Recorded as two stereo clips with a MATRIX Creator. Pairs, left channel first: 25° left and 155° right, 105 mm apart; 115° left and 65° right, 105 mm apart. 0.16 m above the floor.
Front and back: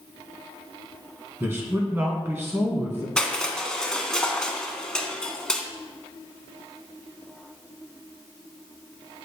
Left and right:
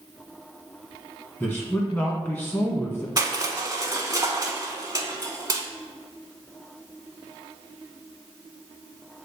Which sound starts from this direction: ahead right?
Crushing, at 3.2 s.